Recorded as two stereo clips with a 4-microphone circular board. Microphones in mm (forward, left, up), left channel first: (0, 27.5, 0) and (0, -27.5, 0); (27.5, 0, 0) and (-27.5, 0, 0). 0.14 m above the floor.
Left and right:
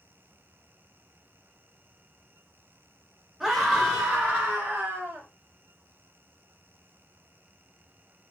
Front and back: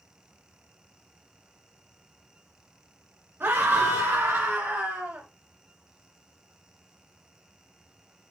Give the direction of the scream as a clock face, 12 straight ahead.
6 o'clock.